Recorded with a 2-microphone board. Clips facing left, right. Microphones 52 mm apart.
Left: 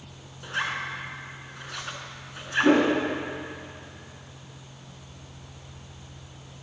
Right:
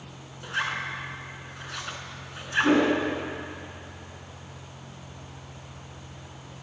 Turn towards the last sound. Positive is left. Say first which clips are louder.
# left 2 dB
turn(degrees=30)  # may be behind; listen again after turning